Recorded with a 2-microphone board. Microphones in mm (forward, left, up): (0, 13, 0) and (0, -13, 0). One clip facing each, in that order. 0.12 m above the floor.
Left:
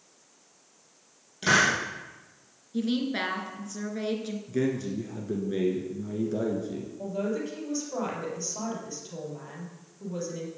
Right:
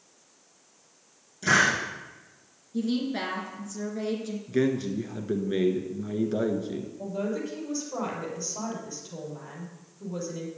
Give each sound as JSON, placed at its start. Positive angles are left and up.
{"t": 1.4, "sound": "a hiss", "side_deg": 50, "distance_m": 4.0}
{"t": 2.7, "sound": "a woman speaking", "side_deg": 30, "distance_m": 1.7}
{"t": 4.5, "sound": "a man speaking", "side_deg": -35, "distance_m": 1.4}
{"t": 7.0, "sound": "a man speaking", "side_deg": 5, "distance_m": 3.5}